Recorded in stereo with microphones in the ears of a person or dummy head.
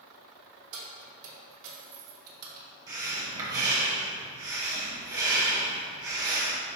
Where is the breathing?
20° right (ahead or behind), 1.1 m.